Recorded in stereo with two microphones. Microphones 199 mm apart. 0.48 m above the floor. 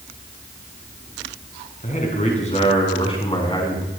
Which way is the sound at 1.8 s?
40° left (ahead or behind).